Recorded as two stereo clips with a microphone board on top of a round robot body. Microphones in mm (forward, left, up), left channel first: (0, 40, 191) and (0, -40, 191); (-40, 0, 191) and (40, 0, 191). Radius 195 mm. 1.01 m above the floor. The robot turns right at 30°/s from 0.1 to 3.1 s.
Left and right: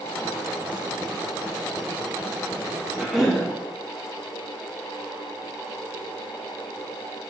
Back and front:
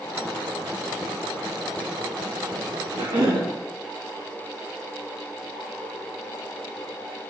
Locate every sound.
2.9 s a cough: 10° right, 1.9 m; by 3.5 s 5° right, 1.9 m